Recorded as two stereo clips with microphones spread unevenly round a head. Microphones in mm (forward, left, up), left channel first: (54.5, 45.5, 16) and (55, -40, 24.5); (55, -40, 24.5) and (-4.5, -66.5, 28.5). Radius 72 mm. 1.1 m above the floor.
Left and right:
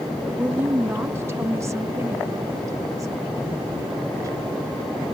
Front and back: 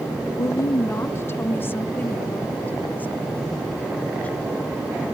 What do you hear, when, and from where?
0.4 s a woman speaking: 10° right; by 4.8 s 45° right